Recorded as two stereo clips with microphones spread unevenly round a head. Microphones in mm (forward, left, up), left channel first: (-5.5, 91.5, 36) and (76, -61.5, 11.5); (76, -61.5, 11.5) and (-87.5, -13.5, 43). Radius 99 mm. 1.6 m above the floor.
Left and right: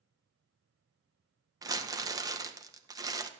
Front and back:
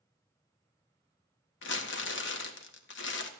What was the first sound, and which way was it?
Crumpling, 10° left.